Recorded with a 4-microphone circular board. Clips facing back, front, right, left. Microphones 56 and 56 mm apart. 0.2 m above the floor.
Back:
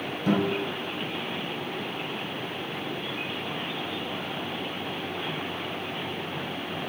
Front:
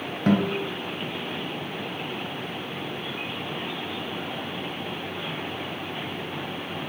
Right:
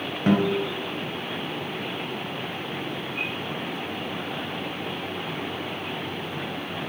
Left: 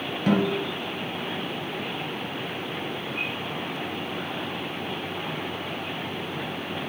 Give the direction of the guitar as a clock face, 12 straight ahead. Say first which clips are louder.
Front 2 dB, right 1 dB; 1 o'clock.